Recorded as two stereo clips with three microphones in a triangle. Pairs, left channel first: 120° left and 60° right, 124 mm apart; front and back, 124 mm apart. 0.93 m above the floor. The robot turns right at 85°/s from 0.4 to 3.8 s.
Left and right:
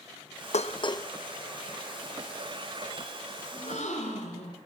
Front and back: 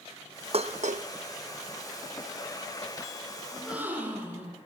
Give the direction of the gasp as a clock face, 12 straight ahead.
9 o'clock.